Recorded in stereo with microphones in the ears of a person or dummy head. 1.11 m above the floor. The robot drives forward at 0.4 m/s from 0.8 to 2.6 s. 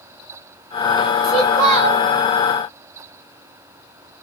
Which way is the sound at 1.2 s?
35° right (ahead or behind).